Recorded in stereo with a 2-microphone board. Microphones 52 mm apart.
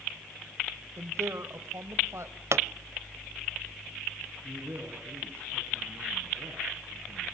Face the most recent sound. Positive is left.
turn(degrees=-45)  # may be behind; listen again after turning